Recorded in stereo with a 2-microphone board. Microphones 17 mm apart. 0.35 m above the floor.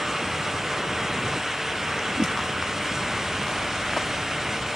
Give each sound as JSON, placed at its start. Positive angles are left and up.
{"t": 2.2, "sound": "a whoosh", "side_deg": -80}